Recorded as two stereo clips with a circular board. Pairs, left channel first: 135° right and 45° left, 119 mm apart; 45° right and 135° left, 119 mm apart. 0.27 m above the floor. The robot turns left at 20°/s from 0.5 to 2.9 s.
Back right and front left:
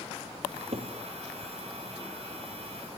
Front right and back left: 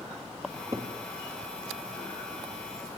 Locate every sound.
0.4 s a cupboard door: 75° left, 3.5 m; by 0.9 s 70° left, 3.5 m